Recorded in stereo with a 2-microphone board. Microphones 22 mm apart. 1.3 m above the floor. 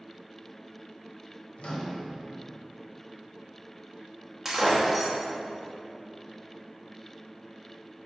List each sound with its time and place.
1.6 s a microwave: 60° left (ahead or behind), 0.6 m
4.5 s breaking glass: 10° right (ahead or behind), 0.8 m